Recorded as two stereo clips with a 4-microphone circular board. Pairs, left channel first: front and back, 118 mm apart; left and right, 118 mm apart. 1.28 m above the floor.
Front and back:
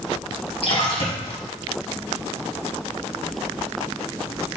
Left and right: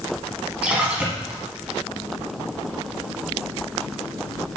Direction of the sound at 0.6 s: 15° right.